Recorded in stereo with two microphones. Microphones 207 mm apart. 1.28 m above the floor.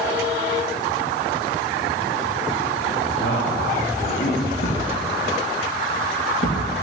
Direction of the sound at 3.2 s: 60° left (ahead or behind).